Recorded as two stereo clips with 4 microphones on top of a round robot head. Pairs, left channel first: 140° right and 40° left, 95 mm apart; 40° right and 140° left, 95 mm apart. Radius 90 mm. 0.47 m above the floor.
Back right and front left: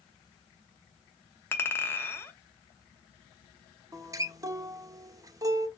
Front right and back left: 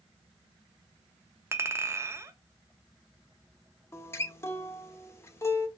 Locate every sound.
1.5 s a clink: 175° left, 0.8 m
3.9 s a guitar: 5° left, 0.7 m